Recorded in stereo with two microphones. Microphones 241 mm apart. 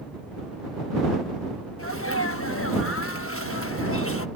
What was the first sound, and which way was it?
A sneeze, 65° left (ahead or behind).